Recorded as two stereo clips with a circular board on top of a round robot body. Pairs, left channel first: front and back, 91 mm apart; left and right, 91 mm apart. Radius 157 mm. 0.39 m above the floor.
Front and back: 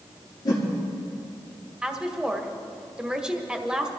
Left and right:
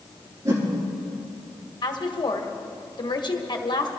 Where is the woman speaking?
100° left, 1.6 m.